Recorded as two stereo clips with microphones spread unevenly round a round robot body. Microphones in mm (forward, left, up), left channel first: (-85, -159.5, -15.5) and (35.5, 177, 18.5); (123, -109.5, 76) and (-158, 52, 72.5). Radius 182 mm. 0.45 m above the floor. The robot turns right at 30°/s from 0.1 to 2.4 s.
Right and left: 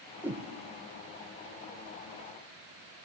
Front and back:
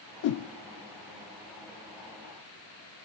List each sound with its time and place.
0.2 s a whoosh: 20° right, 0.5 m; by 0.5 s 10° right, 0.5 m